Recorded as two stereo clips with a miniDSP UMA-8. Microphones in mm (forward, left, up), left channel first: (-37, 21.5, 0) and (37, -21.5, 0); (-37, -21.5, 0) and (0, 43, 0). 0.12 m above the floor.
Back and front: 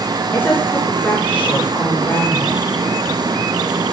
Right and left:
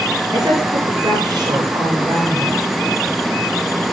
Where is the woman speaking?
85° left, 9.5 m.